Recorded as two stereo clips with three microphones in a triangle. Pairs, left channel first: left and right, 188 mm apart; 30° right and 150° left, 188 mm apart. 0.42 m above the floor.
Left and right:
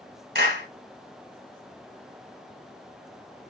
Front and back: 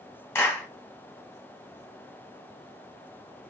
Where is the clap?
105° right, 2.5 m.